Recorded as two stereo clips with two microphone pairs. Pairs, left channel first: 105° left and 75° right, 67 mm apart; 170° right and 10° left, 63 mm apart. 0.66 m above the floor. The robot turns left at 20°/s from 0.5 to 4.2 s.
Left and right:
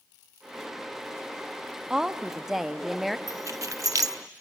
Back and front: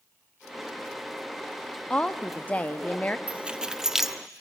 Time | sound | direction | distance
1.9 | a woman speaking | 135° right | 0.5 m
3.3 | keys jangling | 60° right | 0.9 m